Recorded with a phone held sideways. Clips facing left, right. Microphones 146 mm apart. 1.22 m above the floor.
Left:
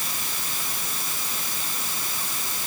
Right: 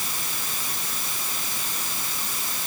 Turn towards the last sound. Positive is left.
No sound to turn to.